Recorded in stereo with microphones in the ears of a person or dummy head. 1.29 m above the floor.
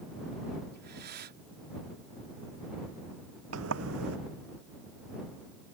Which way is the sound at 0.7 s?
50° right (ahead or behind).